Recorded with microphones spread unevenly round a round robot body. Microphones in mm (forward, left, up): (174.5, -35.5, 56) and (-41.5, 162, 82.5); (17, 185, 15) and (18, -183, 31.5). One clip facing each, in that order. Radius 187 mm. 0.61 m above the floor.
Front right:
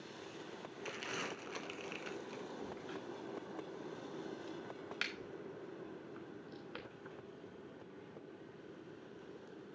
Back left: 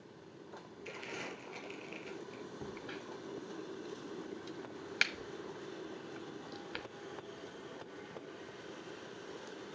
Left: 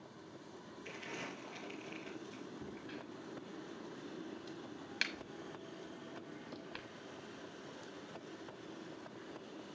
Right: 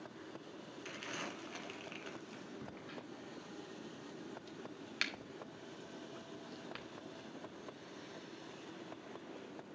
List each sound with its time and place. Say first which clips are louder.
0.8 s crumpling: even, left 1 dB; 35° right, 2.5 m
2.6 s a crack: back left 1 dB, left 2 dB; straight behind, 1.4 m